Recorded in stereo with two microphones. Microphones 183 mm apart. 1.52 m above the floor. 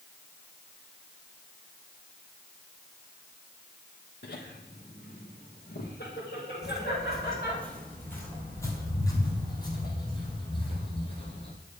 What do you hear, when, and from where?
4.2 s laughter: 75° left (ahead or behind), 1.0 m; by 7.6 s 70° left (ahead or behind), 4 m
6.6 s footsteps: 5° right (ahead or behind), 2.5 m; by 11.5 s 35° left (ahead or behind), 4 m